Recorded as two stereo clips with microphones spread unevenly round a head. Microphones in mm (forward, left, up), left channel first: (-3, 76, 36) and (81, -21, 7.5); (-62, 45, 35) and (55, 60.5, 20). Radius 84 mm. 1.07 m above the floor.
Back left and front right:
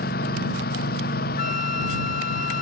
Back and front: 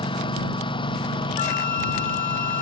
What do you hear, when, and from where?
0.0 s a lawn mower: 140° left
1.4 s a flute: straight behind